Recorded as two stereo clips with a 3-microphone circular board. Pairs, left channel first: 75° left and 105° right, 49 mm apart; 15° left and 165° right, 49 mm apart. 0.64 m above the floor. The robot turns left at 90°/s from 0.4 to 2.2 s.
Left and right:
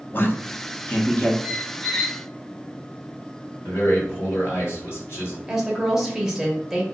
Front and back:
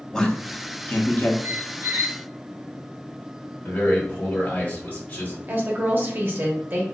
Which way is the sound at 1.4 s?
165° right.